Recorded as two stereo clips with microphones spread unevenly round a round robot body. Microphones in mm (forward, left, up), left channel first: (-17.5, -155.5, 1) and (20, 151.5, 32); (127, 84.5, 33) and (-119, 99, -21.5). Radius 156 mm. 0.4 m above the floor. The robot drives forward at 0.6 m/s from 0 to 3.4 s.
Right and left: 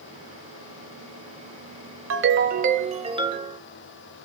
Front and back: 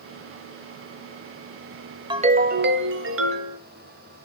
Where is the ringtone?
125° left, 0.6 m; by 3.6 s 160° left, 1.2 m.